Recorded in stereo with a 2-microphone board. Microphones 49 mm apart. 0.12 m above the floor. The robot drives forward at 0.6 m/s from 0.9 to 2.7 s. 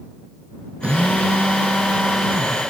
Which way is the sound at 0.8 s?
30° right (ahead or behind).